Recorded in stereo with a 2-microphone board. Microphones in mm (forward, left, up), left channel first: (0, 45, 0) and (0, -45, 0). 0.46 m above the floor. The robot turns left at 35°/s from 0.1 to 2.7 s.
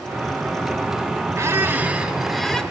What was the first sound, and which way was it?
A squeak, 145° right.